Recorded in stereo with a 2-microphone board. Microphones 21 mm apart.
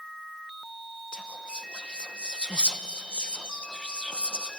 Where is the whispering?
55° left (ahead or behind), 1.1 m.